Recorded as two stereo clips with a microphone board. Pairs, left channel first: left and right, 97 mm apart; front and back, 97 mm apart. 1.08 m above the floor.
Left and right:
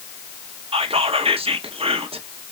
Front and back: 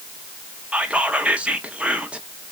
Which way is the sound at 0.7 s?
105° right.